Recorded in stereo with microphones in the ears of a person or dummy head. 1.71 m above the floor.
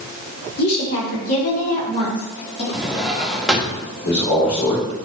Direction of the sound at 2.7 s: Centre (ahead or behind).